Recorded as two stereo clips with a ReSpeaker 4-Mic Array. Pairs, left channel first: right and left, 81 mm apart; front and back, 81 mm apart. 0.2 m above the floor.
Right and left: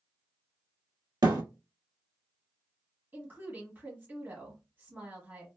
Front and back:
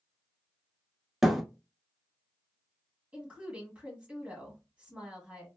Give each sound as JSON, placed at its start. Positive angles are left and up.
{"t": 1.2, "sound": "a thud", "azimuth_deg": 95, "distance_m": 1.4}
{"t": 3.1, "sound": "a woman speaking", "azimuth_deg": 120, "distance_m": 1.2}